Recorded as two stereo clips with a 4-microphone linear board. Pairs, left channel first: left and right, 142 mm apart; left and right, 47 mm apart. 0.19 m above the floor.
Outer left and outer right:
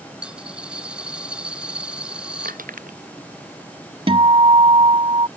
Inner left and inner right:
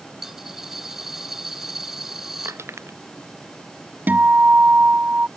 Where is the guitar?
40° right (ahead or behind).